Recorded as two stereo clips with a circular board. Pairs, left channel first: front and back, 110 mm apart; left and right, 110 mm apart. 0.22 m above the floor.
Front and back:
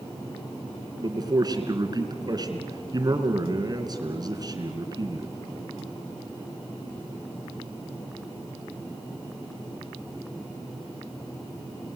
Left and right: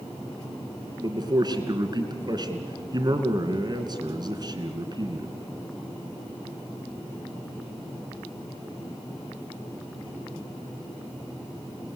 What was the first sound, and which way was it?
A man speaking, 130° right.